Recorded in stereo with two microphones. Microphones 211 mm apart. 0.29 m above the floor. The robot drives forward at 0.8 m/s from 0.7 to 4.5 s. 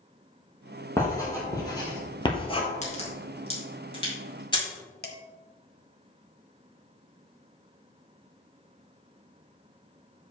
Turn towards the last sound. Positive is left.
turn(degrees=50)  # may be behind; listen again after turning